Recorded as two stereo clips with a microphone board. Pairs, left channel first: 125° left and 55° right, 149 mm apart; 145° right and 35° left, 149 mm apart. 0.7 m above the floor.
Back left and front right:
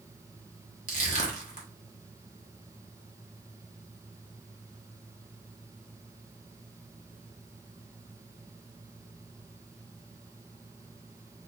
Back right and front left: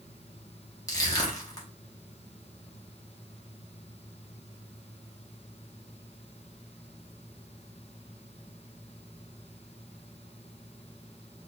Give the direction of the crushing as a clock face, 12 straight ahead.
7 o'clock.